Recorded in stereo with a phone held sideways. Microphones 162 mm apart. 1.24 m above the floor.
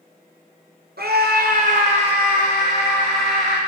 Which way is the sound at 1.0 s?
85° right.